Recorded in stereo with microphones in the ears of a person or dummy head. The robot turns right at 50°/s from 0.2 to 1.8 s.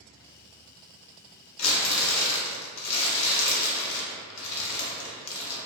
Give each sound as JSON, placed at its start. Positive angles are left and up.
{"t": 1.6, "sound": "crumpling", "side_deg": 80, "distance_m": 0.6}